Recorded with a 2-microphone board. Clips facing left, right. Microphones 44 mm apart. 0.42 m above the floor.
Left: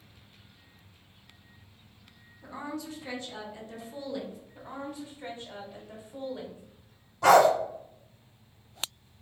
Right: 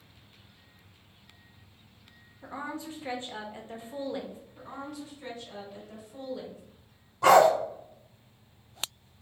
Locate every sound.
2.4 s a woman speaking: 30° right (ahead or behind), 0.8 m
4.5 s a woman speaking: 30° left (ahead or behind), 1.4 m
7.2 s a dog barking: 5° right (ahead or behind), 1.7 m